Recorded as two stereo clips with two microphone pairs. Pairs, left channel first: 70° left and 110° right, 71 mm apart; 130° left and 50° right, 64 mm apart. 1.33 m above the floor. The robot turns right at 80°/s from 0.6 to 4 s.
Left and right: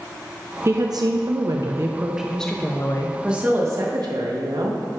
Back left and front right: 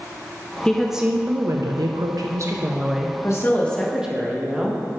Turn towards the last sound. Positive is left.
turn(degrees=-130)